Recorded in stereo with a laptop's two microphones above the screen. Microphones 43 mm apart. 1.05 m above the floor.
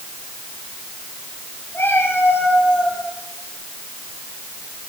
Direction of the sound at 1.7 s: 65° left (ahead or behind).